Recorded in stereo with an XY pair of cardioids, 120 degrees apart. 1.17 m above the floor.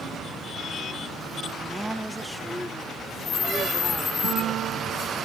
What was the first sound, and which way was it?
A woman speaking, 10° right.